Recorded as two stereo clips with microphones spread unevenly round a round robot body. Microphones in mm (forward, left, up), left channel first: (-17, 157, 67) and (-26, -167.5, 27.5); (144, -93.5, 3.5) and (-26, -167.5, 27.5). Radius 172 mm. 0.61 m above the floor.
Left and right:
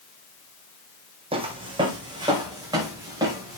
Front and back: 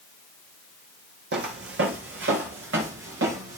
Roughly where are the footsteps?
Behind.